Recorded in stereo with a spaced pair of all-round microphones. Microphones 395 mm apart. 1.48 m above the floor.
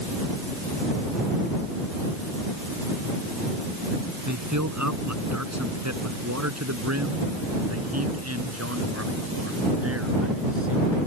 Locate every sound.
4.3 s a man speaking: 45° right (ahead or behind); by 11.0 s 35° right (ahead or behind)